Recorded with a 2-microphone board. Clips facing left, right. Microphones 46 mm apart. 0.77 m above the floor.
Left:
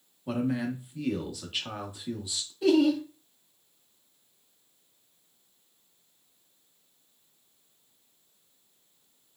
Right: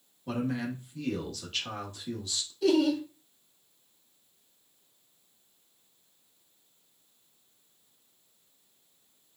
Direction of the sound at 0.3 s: 15° left (ahead or behind).